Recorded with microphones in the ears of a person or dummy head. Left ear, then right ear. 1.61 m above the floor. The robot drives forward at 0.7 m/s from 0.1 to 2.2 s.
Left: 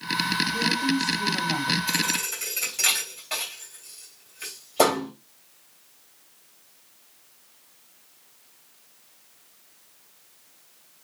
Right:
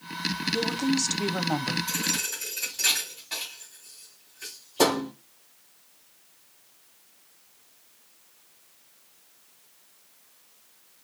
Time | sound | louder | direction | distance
0.5 | a woman speaking | left 3 dB | 45° right (ahead or behind) | 0.8 m
1.9 | a thud | left 3 dB | 25° left (ahead or behind) | 2.5 m